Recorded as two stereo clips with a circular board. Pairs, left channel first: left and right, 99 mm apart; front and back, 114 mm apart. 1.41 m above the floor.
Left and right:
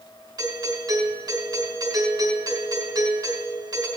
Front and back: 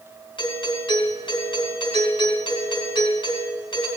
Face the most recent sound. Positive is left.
turn(degrees=-45)